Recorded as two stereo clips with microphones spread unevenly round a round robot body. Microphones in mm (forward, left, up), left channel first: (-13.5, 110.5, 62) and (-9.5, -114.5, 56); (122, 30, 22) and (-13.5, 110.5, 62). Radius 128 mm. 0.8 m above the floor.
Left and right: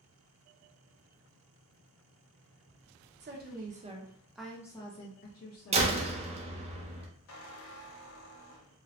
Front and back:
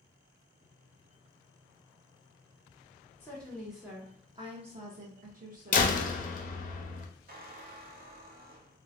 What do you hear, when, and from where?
3.2 s a woman speaking: 90° right, 0.9 m; by 6.0 s 115° left, 1.1 m
5.7 s a door slam: 30° right, 0.5 m
7.3 s a squeak: 120° left, 0.6 m